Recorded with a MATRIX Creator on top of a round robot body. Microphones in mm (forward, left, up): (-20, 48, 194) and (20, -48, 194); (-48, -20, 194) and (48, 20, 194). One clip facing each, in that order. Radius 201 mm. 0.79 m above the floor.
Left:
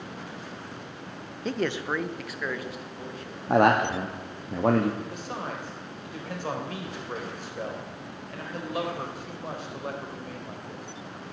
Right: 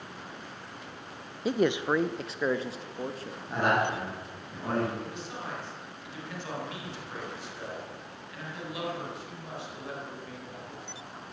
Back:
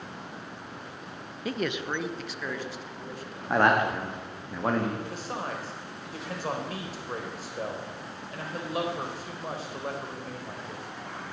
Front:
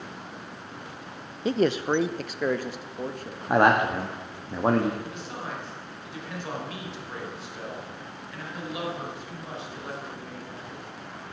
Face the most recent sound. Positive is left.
turn(degrees=155)